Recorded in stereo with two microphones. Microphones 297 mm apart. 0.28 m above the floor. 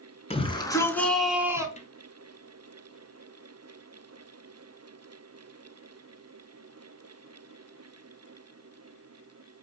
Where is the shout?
20° left (ahead or behind), 3.5 m; by 1.7 s 10° right (ahead or behind), 3 m.